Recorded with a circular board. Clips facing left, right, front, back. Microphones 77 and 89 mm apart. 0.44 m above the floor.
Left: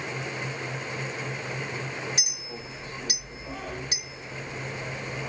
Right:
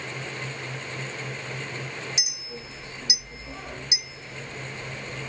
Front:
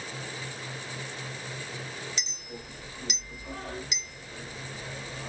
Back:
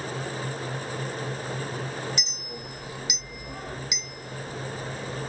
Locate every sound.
2.2 s a clink: 105° left, 1.2 m